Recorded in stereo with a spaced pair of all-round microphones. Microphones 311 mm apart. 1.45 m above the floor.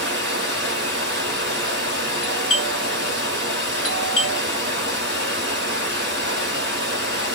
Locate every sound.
0.0 s running water: 35° right (ahead or behind), 1.2 m
2.2 s a doorbell: 45° left (ahead or behind), 1.4 m